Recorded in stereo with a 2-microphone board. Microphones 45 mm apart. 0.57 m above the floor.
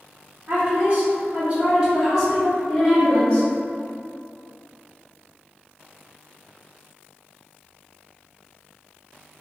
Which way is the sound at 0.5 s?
50° right (ahead or behind).